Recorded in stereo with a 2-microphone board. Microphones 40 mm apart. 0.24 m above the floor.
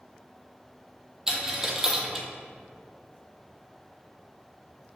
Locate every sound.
1.3 s a dropped coin: 15° right (ahead or behind), 0.7 m